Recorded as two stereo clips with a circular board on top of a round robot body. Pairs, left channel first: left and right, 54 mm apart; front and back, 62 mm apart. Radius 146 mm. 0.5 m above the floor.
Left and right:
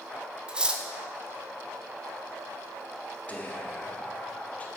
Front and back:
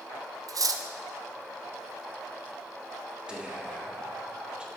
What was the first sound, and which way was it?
Cutlery clinking, 160° right.